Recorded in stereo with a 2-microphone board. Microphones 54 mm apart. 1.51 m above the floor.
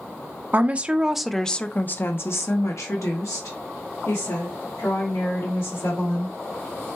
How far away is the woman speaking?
About 0.7 m.